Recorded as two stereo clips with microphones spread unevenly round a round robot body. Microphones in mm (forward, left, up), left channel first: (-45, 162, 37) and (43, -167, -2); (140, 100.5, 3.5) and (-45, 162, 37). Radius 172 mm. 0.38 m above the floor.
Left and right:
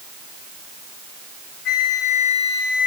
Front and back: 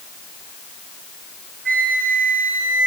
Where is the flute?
135° left, 2.5 m.